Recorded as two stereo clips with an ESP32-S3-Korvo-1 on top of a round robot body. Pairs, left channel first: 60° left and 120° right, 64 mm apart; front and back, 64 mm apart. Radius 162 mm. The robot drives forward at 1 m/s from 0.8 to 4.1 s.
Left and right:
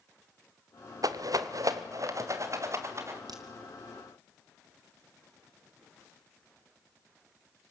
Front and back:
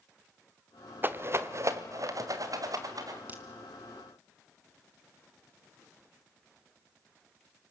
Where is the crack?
120° right, 2.5 m.